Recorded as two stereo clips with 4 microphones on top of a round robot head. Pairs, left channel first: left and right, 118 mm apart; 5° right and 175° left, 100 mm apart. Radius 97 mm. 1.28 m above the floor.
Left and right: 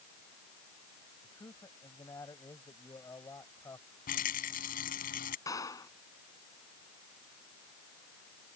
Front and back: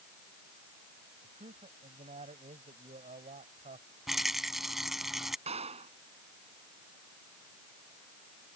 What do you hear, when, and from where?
1.2 s a man speaking: 155° left
4.1 s a rattle: 85° left
5.5 s a clap: 155° left